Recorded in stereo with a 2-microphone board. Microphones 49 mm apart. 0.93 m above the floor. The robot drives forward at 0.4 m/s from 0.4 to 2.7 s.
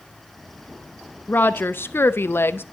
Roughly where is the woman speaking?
Left.